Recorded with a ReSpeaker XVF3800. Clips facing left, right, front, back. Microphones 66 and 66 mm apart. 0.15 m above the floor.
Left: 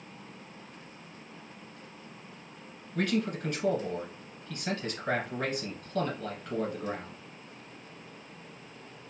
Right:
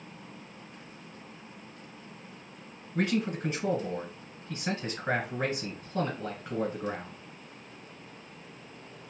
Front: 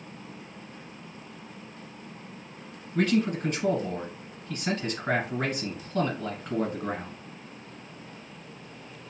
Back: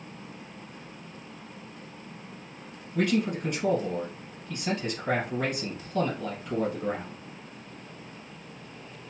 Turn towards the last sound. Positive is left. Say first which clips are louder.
# right 1 dB, front 1 dB
turn(degrees=-30)